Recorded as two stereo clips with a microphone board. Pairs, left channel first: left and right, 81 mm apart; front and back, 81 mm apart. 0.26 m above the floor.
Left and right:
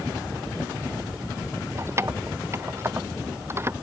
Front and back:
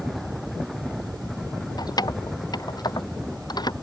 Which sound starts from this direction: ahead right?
Keys jangling, at 1.8 s.